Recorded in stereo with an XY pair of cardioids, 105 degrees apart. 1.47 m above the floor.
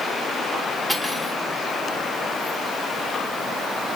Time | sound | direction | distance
0.9 | cutlery clinking | straight ahead | 3 m